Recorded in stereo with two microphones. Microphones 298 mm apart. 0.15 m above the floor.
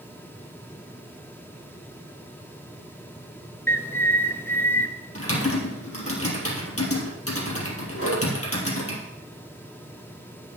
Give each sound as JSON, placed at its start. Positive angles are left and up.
{"t": 3.7, "sound": "a bird", "side_deg": 10, "distance_m": 0.9}
{"t": 5.2, "sound": "typing on a keyboard", "side_deg": 55, "distance_m": 3.0}
{"t": 8.0, "sound": "a whoosh", "side_deg": 55, "distance_m": 5.0}